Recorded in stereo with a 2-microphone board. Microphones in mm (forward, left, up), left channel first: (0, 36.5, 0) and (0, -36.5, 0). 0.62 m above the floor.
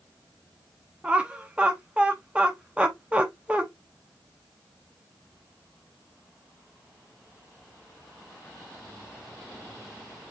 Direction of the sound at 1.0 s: 15° right (ahead or behind).